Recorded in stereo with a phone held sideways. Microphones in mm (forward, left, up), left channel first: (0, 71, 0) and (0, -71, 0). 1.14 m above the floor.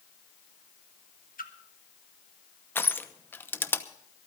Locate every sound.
1.4 s a splash: 75° left (ahead or behind), 1.3 m
2.8 s crushing: 15° left (ahead or behind), 0.8 m